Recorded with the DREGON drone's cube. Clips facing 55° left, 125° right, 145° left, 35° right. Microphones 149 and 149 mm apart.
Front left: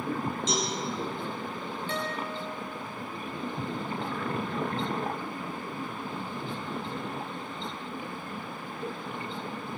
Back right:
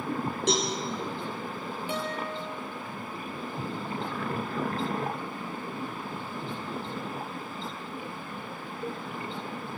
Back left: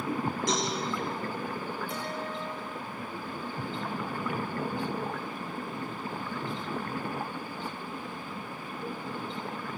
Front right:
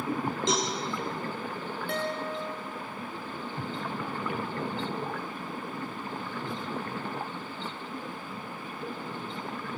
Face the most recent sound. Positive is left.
turn(degrees=-50)